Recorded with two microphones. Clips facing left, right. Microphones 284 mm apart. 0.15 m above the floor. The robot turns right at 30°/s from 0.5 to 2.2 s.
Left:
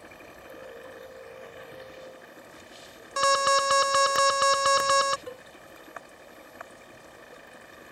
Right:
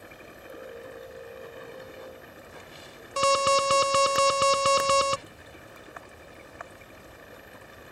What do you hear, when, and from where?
0.0 s running water: 160° right; by 7.9 s 110° right
3.2 s an alarm: 30° right (ahead or behind)
5.3 s a cowbell: 75° left (ahead or behind)